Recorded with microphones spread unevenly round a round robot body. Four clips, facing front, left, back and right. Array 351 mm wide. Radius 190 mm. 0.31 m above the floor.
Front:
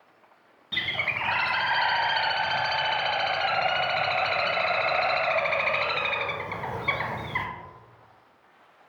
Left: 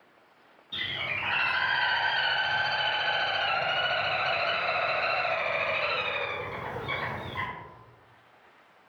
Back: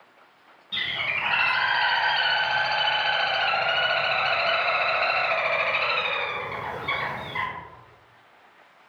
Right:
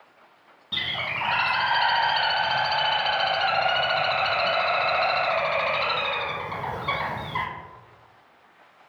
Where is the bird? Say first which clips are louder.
Right 5 dB, even; 70° right, 0.6 m.